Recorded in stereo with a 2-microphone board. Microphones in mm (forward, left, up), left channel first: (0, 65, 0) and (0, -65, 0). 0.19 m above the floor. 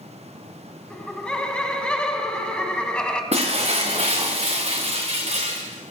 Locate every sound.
0.9 s laughter: 10° left (ahead or behind), 1.6 m
3.3 s breaking glass: 55° right (ahead or behind), 2.5 m